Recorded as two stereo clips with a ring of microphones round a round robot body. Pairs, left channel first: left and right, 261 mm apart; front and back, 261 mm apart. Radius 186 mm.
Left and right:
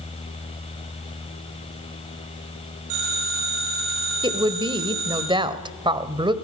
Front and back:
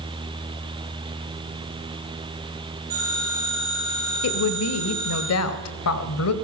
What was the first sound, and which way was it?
A phone ringing, 110° right.